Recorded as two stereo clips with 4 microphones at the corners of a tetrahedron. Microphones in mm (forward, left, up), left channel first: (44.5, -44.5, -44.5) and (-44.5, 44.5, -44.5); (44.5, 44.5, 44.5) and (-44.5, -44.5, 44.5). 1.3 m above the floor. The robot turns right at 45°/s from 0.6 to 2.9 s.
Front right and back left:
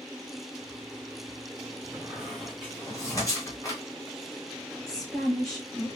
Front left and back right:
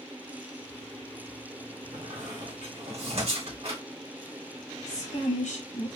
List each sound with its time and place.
1.9 s a squeak: 150° right, 2 m; by 3.8 s 105° right, 2 m
4.9 s a woman speaking: 40° left, 1.2 m